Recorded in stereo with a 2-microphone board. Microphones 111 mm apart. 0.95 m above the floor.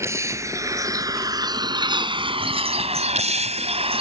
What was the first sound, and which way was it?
A vehicle, 25° right (ahead or behind).